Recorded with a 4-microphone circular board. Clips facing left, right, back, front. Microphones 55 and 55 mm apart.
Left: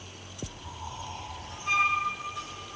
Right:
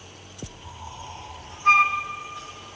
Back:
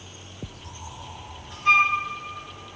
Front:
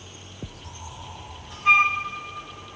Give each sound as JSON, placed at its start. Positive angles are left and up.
{"t": 1.6, "sound": "a flute", "azimuth_deg": -80, "distance_m": 0.7}